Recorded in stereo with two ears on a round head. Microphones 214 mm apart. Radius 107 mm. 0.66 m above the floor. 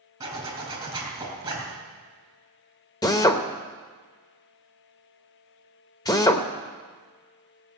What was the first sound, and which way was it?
A zipper, 15° right (ahead or behind).